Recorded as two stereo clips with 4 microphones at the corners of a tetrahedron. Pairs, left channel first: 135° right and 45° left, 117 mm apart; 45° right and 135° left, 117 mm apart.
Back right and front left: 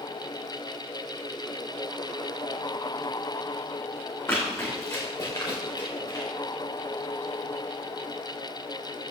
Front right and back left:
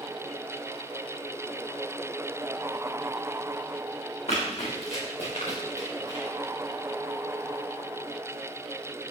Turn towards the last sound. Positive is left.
turn(degrees=-85)